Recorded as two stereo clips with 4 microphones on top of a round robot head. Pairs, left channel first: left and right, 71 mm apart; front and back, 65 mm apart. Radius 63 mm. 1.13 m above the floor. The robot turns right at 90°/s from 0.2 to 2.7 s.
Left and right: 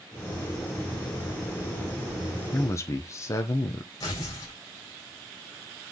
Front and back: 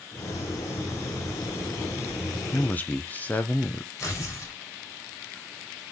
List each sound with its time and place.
2.5 s a man speaking: 40° left, 0.9 m; by 3.9 s 55° left, 0.9 m
4.0 s tearing paper: 40° left, 4.5 m